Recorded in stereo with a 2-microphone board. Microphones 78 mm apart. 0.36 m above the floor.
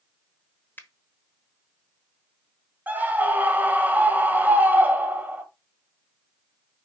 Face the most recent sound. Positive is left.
turn(degrees=-25)  # may be behind; listen again after turning